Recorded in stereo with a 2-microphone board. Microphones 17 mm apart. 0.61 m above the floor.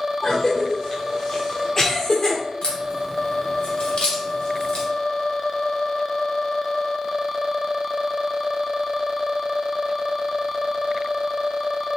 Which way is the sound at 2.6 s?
70° left (ahead or behind).